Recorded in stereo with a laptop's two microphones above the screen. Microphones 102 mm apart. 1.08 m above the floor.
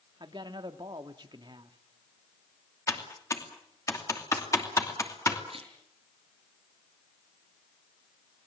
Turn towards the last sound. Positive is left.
turn(degrees=-60)  # may be behind; listen again after turning